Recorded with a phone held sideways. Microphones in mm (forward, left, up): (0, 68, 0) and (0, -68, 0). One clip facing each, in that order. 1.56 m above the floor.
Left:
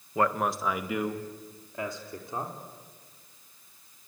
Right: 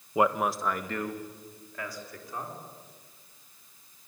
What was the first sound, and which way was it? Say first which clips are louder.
A man speaking: right 1 dB; 20° right (ahead or behind).